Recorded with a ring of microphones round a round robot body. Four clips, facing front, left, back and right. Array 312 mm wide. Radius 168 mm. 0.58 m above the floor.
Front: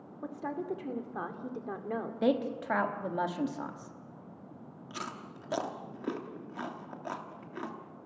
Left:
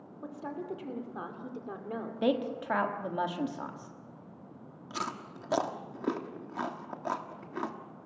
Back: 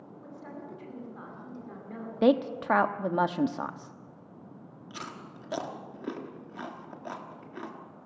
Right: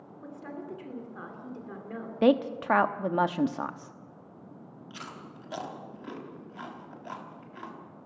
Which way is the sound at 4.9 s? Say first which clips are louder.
Left 8 dB, front 1 dB; 90° left.